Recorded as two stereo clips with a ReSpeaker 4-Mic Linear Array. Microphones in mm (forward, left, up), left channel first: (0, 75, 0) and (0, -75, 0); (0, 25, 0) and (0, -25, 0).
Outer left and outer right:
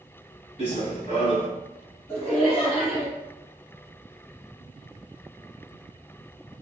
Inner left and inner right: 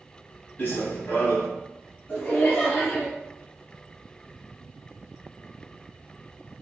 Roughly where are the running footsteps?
Left.